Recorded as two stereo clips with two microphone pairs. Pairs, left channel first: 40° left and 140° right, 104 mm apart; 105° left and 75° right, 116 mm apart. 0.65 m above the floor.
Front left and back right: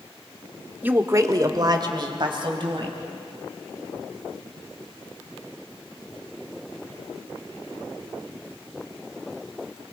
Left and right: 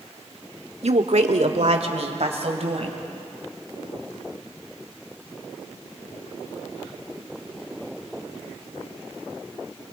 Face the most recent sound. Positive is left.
turn(degrees=-105)